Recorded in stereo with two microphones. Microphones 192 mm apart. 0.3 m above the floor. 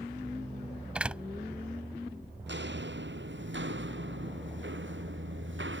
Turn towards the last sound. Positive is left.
turn(degrees=-85)